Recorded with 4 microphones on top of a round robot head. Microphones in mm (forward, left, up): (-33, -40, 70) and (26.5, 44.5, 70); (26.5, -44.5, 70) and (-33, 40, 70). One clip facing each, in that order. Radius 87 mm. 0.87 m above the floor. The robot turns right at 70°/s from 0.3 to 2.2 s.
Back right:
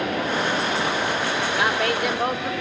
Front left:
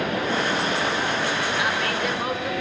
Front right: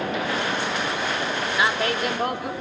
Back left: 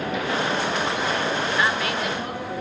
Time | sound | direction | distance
1.6 | a woman speaking | 130° right | 3.5 m